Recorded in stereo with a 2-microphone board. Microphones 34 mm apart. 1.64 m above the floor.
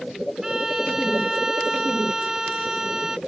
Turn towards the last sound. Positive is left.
turn(degrees=-15)  # may be behind; listen again after turning